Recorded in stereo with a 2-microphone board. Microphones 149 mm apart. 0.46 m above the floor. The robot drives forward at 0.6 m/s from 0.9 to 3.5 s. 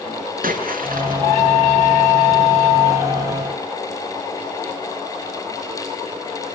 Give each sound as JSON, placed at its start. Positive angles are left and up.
{"t": 0.4, "sound": "a splash", "side_deg": -80, "distance_m": 6.5}